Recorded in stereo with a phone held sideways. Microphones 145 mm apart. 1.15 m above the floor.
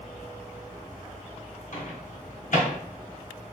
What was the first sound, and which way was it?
A microwave, 60° left (ahead or behind).